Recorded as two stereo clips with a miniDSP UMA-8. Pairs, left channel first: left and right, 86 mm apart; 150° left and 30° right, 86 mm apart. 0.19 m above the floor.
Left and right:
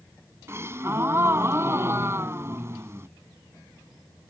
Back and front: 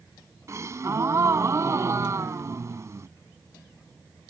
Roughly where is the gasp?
Ahead right.